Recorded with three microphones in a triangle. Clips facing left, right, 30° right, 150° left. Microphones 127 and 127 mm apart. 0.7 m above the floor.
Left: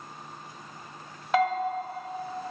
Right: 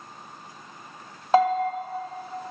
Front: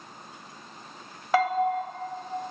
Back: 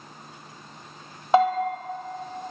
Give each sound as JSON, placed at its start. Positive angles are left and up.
{"t": 1.3, "sound": "a bell", "azimuth_deg": -145, "distance_m": 1.0}